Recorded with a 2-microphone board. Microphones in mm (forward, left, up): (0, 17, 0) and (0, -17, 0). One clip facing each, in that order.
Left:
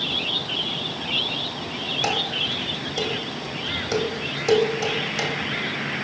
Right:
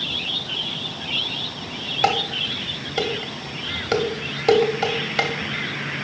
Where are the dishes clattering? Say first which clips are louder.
Right 4 dB; 40° right (ahead or behind), 1.0 m.